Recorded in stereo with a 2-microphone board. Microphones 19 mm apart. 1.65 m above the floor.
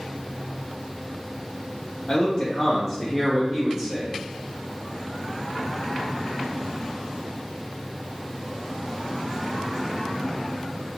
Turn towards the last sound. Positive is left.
turn(degrees=-25)  # may be behind; listen again after turning